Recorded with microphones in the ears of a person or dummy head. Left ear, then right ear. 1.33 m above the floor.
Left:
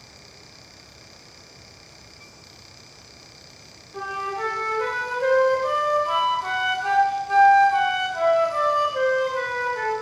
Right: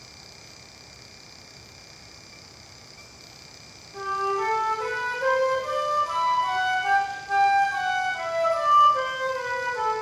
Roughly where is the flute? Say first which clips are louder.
Right 2 dB; centre.